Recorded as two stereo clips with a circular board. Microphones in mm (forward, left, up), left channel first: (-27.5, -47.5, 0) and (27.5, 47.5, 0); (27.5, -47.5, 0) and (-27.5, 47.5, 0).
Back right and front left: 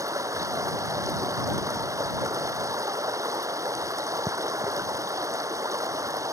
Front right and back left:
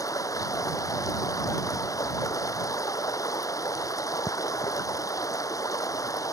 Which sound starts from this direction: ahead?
Running water, at 0.0 s.